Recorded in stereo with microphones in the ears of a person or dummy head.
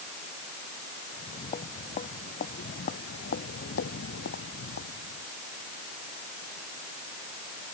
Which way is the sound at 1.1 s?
40° left (ahead or behind).